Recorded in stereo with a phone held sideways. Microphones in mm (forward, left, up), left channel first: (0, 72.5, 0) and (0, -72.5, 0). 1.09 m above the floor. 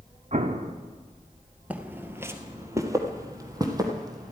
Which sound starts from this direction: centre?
Footsteps, at 1.7 s.